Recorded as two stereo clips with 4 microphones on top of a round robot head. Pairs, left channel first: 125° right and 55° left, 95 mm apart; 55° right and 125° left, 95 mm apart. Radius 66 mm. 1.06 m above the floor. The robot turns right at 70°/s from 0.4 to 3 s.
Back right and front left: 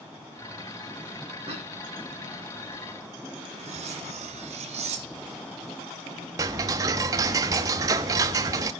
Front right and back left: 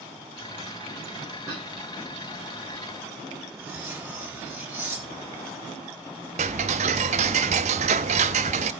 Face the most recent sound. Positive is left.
turn(degrees=110)